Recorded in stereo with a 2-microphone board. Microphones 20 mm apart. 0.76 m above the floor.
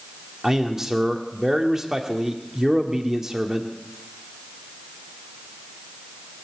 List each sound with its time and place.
0.4 s a man speaking: 25° right (ahead or behind), 1.7 m